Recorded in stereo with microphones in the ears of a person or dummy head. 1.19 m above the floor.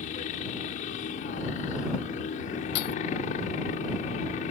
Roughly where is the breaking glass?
Left.